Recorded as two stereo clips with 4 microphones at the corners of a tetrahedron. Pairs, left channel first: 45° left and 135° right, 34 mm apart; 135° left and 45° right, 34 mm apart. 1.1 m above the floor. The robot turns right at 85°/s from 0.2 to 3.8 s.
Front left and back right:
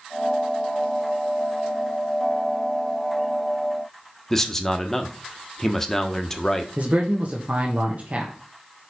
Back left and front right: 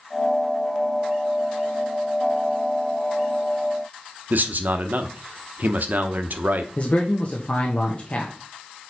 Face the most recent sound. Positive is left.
turn(degrees=180)